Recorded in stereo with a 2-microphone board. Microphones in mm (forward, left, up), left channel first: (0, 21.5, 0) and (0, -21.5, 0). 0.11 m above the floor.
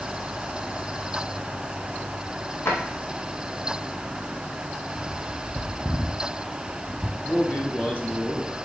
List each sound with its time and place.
2.6 s a drawer: 75° left (ahead or behind), 1.8 m
5.0 s a bird: 15° right (ahead or behind), 0.7 m
7.2 s a man speaking: 35° left (ahead or behind), 1.6 m